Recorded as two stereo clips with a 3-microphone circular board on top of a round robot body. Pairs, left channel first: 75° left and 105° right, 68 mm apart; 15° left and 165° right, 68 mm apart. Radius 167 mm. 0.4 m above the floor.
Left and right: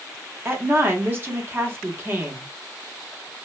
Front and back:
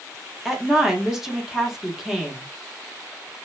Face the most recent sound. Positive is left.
turn(degrees=-90)